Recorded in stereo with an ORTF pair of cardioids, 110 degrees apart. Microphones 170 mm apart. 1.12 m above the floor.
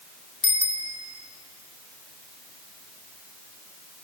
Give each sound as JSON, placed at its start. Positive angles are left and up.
{"t": 0.4, "sound": "a bicycle bell", "azimuth_deg": 35, "distance_m": 3.0}